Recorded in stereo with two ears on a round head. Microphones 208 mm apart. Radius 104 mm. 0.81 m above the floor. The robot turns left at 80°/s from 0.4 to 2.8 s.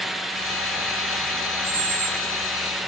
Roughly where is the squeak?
Behind right.